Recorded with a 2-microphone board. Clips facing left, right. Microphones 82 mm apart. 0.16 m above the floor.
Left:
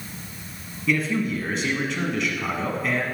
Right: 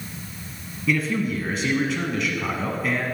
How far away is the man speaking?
About 1.0 m.